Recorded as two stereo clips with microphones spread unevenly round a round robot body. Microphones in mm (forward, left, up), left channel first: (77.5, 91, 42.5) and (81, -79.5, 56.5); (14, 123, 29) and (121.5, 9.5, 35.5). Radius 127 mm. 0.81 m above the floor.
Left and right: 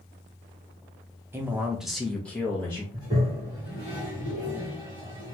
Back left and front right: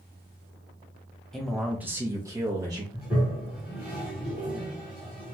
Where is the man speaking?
155° right, 0.6 m; by 2.8 s 20° left, 1.0 m.